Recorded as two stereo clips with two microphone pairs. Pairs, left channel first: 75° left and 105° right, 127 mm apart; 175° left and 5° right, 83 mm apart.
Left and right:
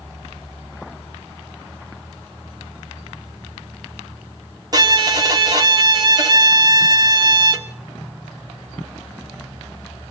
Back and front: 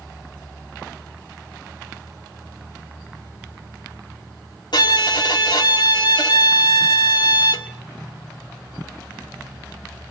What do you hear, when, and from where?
4.7 s a violin: 160° right, 1.8 m